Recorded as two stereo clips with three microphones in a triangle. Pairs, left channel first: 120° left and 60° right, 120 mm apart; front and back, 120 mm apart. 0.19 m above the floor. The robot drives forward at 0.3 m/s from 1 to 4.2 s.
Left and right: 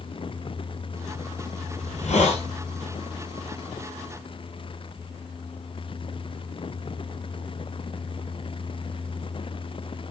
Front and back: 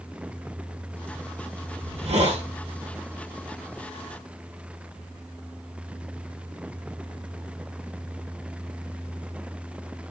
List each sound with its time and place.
1.8 s a hiss: 145° left, 0.9 m; by 2.5 s 150° left, 1.1 m